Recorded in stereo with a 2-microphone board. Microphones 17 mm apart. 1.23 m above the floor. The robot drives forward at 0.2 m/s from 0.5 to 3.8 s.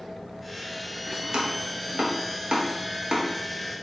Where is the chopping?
75° right (ahead or behind), 0.8 m; by 3.3 s 55° right (ahead or behind), 1.0 m.